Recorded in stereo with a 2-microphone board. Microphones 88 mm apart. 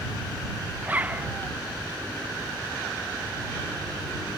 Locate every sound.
0.8 s a zipper: 20° right (ahead or behind)